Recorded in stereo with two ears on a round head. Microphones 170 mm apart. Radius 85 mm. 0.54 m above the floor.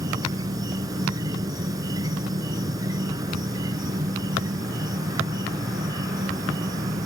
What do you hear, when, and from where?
0.0 s an insect: 20° right (ahead or behind)